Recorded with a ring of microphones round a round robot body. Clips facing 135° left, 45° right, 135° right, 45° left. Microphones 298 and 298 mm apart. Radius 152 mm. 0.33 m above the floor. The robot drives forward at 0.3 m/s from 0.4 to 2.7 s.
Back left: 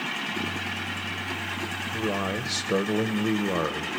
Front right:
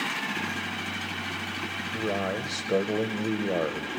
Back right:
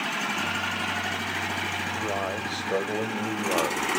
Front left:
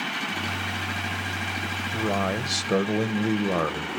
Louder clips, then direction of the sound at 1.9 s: Back left 1 dB, front left 6 dB; 55° left.